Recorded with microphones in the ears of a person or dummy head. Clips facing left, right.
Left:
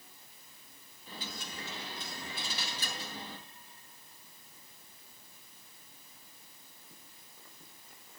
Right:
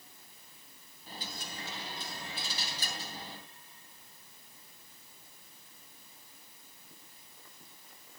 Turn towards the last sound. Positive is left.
turn(degrees=-40)  # may be behind; listen again after turning